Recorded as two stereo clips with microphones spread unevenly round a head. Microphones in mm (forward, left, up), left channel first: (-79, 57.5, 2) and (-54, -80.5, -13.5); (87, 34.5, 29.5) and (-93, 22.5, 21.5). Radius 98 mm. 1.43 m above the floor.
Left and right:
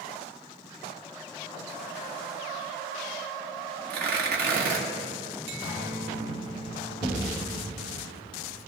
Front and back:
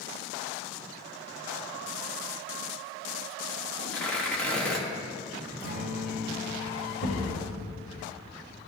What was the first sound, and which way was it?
Tearing paper, 80° right.